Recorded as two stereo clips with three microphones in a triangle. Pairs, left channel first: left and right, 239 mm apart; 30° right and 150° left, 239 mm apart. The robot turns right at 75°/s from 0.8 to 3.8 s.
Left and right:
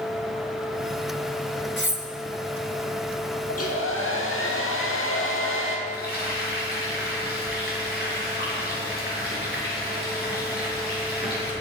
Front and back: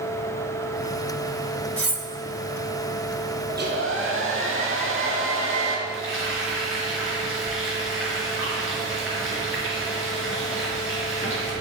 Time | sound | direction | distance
1.8 | cutlery clinking | 80° right | 1.0 m
3.5 | a hair dryer | 95° left | 2.5 m
5.9 | frying | 130° left | 4 m